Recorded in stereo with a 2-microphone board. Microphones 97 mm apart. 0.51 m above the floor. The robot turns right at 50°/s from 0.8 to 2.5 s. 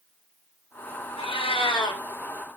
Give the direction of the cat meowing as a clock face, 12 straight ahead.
9 o'clock.